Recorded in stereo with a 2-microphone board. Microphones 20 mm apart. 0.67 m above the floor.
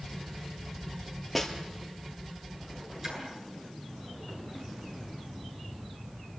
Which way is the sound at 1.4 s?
Centre (ahead or behind).